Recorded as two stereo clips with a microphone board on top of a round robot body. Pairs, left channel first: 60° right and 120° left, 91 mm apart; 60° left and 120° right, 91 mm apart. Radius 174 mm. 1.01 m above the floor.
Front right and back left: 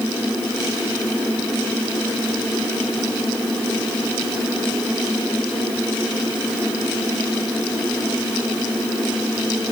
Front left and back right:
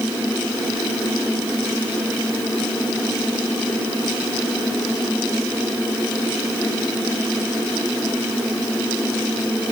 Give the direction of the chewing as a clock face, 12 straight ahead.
I don't hear chewing.